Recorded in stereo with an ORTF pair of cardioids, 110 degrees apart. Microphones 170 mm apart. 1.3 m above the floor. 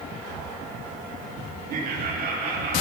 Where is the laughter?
60° right, 2 m; by 2.8 s 65° right, 2.5 m.